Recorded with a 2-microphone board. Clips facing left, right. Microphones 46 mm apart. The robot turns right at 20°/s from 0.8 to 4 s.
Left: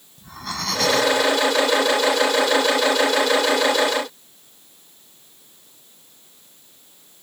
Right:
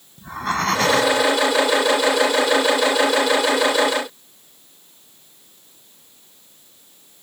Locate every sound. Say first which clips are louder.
0.2 s breathing: right 8 dB; 40° right (ahead or behind); by 1.2 s 45° right (ahead or behind)